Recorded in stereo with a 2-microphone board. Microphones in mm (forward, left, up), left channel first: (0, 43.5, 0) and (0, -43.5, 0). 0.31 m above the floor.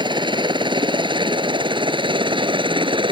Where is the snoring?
I don't hear snoring.